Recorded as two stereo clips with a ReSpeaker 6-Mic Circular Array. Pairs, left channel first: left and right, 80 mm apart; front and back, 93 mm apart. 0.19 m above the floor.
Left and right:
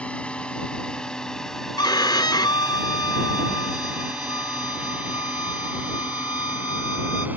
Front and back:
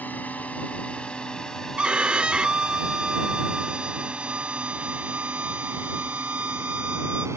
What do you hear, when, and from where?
0.0 s a drone: 40° left; by 7.4 s 145° right
1.8 s a violin: 100° left